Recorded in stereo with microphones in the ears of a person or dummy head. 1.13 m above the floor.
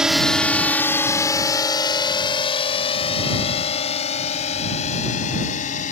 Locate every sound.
0.0 s a drone: centre (ahead or behind); by 5.9 s 45° left (ahead or behind)